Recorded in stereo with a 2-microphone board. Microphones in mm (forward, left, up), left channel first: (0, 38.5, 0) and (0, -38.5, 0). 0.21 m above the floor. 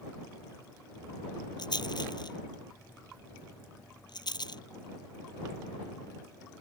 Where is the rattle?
65° left (ahead or behind).